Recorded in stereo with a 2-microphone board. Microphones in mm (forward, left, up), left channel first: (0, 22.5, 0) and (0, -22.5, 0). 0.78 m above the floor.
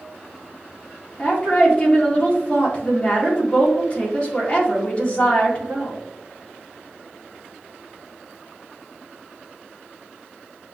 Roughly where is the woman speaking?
Left.